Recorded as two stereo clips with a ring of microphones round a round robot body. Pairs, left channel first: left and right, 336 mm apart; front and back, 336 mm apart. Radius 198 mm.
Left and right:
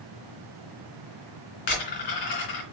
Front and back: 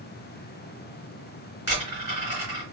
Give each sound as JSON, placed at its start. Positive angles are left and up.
{"t": 1.7, "sound": "a dropped coin", "azimuth_deg": 95, "distance_m": 2.5}